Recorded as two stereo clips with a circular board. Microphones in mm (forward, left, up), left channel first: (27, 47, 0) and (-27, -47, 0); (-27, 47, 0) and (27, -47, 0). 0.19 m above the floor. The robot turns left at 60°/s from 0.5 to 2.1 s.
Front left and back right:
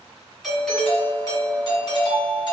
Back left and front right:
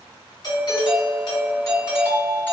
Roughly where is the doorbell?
Behind left.